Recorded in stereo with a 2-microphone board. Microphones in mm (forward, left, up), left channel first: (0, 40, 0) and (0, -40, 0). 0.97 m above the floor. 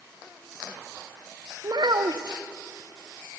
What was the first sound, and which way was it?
A child speaking, 60° right (ahead or behind).